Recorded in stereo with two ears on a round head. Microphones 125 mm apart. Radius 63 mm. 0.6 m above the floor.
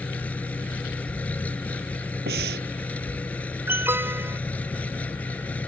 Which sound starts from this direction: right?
Breathing, at 2.3 s.